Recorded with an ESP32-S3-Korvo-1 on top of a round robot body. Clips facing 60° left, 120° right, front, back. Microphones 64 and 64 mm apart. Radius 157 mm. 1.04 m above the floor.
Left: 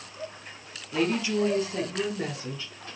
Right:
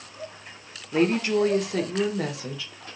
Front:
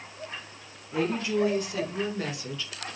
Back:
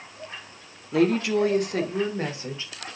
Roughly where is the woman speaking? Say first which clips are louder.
Right 4 dB, back 6 dB; behind.